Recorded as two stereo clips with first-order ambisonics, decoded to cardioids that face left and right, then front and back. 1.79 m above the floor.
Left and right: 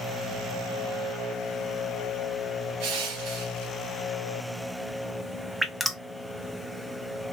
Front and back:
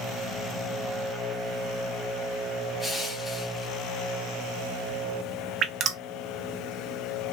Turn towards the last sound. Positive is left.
turn(degrees=-175)